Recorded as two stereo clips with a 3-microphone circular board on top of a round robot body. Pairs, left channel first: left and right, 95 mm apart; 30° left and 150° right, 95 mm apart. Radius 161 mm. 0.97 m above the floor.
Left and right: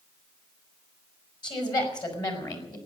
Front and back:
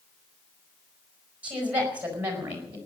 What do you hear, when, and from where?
1.4 s a woman speaking: 135° left, 5 m; by 2.8 s 140° left, 4.5 m